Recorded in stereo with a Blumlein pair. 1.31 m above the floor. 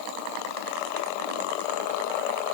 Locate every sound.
Only background noise.